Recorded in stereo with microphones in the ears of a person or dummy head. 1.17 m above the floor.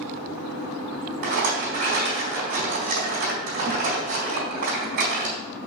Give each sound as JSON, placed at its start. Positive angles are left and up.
{"t": 1.2, "sound": "a rattle", "side_deg": -55, "distance_m": 3.5}